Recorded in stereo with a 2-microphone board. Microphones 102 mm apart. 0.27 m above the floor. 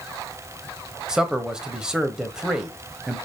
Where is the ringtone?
I don't hear a ringtone.